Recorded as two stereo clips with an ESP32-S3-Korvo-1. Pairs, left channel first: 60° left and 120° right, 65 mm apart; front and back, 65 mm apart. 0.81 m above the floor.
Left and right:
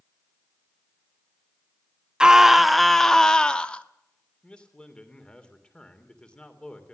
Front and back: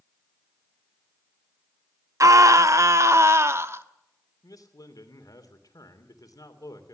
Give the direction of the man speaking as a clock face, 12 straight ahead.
12 o'clock.